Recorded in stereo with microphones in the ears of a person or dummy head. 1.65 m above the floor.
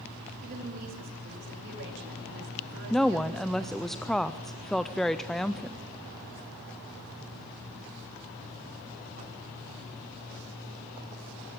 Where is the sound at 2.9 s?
Centre (ahead or behind), 0.5 m.